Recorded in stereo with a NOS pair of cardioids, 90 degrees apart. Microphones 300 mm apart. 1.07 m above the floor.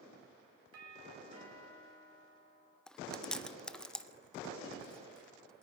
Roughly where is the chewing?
Ahead.